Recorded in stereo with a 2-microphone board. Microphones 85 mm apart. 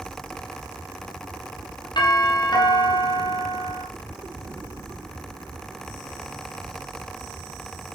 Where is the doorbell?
55° left (ahead or behind), 5 m.